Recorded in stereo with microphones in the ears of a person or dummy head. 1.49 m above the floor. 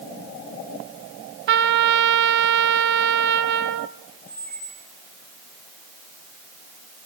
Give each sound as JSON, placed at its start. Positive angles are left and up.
{"t": 1.5, "sound": "a trumpet", "side_deg": -60, "distance_m": 0.8}
{"t": 4.3, "sound": "a squeak", "side_deg": 10, "distance_m": 0.9}